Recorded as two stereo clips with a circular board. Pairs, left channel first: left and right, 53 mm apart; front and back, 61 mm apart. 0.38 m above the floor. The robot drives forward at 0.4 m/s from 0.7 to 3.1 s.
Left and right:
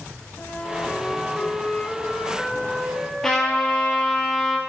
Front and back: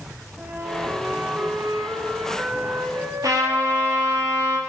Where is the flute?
135° left, 0.7 m; by 4.2 s 165° left, 1.4 m.